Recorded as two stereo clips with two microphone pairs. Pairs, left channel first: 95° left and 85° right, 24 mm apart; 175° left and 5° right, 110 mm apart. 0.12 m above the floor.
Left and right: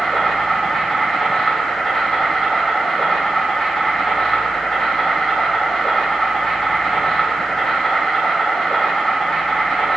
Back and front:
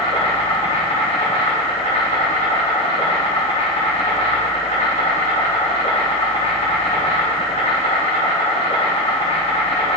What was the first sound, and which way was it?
An insect, 165° left.